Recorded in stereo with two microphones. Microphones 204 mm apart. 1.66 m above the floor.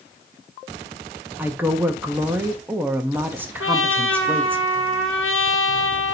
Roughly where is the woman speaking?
Centre.